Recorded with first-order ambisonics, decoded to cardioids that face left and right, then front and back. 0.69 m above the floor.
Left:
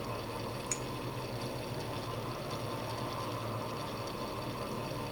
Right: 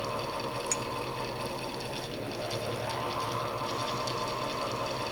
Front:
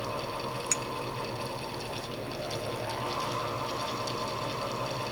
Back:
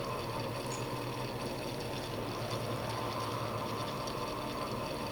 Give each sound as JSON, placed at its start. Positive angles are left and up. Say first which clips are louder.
{"t": 0.7, "sound": "a clink", "louder": "right 5 dB, front 8 dB", "azimuth_deg": -15, "distance_m": 0.6}